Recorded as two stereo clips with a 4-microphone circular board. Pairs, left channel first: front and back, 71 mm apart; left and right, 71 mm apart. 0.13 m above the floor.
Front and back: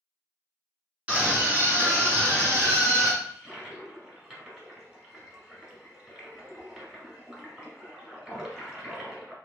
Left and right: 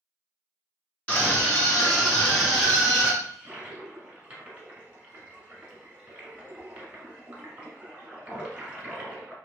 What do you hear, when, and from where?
1.1 s a scream: 135° left, 1.9 m; by 3.1 s 175° right, 2.5 m
3.2 s a toilet flushing: 125° right, 1.4 m